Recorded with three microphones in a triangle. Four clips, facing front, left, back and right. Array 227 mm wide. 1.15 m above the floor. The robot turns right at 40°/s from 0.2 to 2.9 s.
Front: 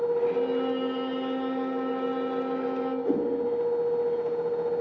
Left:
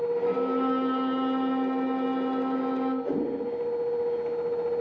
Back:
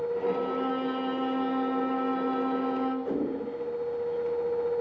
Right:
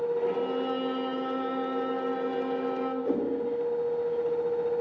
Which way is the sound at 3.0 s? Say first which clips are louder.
Even, front 3 dB; 10° right.